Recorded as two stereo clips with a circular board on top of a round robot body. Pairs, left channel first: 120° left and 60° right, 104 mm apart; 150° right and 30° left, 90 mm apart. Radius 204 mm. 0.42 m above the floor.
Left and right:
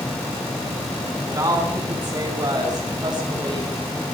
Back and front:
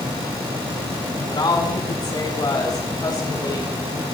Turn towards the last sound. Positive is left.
turn(degrees=-100)